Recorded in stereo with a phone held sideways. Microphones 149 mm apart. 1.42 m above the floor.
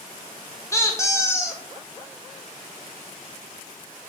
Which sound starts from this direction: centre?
A squeak, at 0.7 s.